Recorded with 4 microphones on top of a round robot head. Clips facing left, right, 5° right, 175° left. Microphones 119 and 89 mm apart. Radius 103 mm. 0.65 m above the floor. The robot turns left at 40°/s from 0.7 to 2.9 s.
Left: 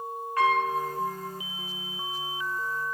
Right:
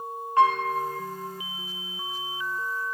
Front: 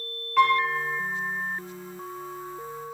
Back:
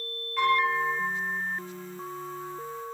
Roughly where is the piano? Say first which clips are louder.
Right 3 dB, front 4 dB; ahead right.